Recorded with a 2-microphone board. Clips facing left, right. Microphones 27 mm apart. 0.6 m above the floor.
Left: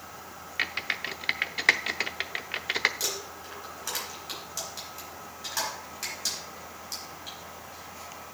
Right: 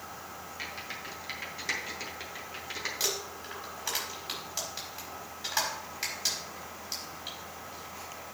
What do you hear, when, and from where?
0.6 s typing on a keyboard: 70° left (ahead or behind), 0.6 m
3.0 s crumpling: 15° right (ahead or behind), 4.5 m